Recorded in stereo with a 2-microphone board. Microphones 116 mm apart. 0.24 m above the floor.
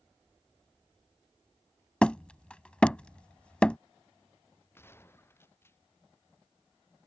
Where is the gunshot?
20° left (ahead or behind).